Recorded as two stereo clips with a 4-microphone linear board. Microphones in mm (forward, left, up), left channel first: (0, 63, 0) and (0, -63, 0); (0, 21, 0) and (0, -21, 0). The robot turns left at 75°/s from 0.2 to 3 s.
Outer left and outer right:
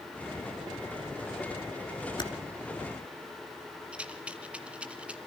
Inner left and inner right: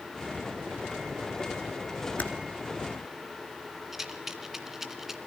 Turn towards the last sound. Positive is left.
turn(degrees=-10)  # may be behind; listen again after turning